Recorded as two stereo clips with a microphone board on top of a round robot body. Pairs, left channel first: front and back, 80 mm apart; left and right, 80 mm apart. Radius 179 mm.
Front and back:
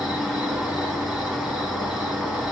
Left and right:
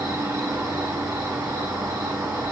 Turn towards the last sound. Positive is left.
turn(degrees=-95)